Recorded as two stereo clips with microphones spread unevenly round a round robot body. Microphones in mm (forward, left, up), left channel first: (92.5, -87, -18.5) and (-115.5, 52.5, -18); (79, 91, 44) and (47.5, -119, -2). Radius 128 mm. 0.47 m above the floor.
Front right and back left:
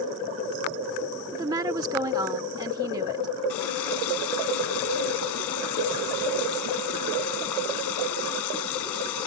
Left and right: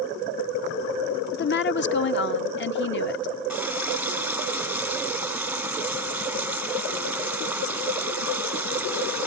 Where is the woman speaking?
80° left.